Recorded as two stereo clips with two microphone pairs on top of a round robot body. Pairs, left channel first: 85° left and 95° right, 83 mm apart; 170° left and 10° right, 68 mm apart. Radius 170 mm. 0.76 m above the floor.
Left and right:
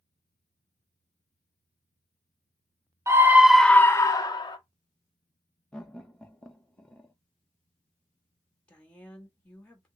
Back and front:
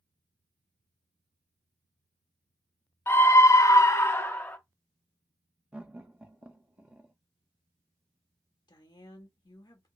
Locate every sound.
3.1 s a scream: 135° right, 0.7 m; by 4.6 s 100° left, 1.0 m
5.7 s laughter: 20° left, 0.9 m
8.7 s a woman speaking: 165° left, 1.4 m